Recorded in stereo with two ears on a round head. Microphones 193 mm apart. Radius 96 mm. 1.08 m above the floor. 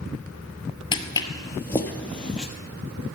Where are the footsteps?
20° left (ahead or behind), 1.2 m; by 2.5 s 5° left (ahead or behind), 1.6 m.